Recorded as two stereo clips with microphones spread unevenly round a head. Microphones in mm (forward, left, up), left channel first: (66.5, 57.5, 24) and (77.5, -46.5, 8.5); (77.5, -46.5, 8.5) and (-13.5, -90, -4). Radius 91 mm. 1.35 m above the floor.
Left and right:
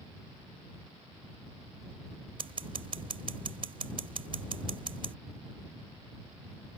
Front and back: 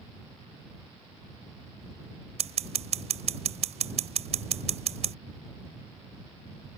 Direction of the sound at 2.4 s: 145° right.